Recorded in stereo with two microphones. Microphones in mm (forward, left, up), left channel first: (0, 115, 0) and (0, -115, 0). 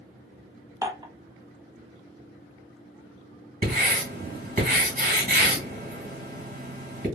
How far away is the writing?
About 2.0 m.